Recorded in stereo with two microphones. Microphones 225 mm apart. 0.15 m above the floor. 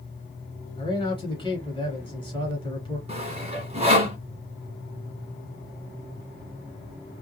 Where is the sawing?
30° right (ahead or behind), 1.3 m.